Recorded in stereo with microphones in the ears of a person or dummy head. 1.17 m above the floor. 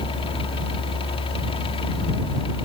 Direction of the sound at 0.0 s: 25° left (ahead or behind).